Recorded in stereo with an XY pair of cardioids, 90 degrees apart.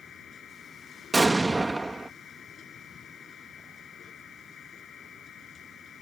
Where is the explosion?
20° right.